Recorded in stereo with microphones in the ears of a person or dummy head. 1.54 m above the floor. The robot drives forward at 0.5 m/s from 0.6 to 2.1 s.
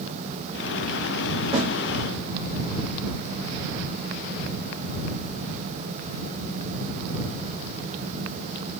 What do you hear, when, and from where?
1.5 s a snare drum: 35° right (ahead or behind), 1.9 m; by 1.7 s 30° right (ahead or behind), 2.0 m